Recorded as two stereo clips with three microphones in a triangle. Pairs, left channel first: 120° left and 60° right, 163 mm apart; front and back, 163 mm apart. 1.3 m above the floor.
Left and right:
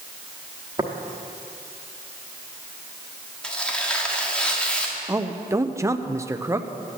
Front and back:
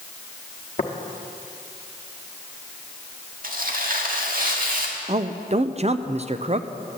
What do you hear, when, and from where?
0.8 s tapping: 10° right, 1.0 m
3.4 s tearing paper: 155° right, 1.4 m
5.1 s a man speaking: 130° right, 0.5 m